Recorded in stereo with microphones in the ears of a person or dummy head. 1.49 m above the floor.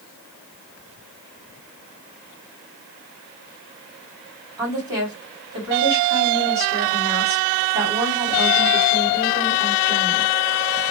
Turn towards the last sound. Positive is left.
turn(degrees=-20)  # may be behind; listen again after turning